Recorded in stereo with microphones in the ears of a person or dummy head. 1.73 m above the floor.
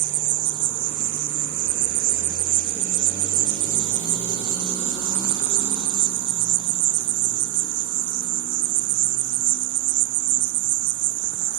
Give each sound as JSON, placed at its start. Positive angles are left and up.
{"t": 0.0, "sound": "an insect", "side_deg": -55, "distance_m": 0.8}